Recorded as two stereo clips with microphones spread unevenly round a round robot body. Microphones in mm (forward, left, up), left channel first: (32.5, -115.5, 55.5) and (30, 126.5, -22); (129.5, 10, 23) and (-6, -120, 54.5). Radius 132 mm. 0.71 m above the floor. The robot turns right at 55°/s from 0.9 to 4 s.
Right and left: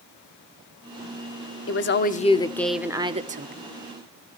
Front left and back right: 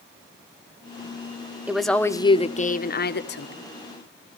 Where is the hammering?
No hammering in this recording.